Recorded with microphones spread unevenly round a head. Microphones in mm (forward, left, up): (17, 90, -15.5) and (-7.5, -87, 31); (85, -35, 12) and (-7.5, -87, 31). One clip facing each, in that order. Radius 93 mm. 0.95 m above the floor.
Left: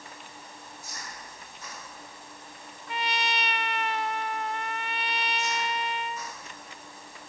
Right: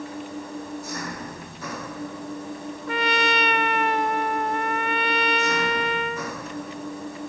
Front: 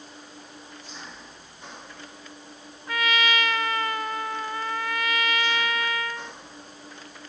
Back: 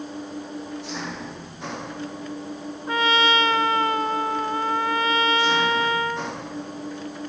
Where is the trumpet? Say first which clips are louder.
Right 8 dB, back 5 dB; 105° right.